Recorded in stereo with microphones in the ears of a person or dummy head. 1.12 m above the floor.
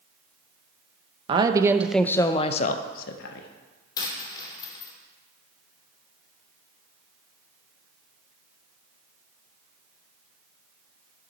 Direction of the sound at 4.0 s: 25° left (ahead or behind).